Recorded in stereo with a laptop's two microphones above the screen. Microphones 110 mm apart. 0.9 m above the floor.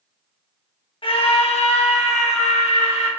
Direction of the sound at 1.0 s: 55° left (ahead or behind).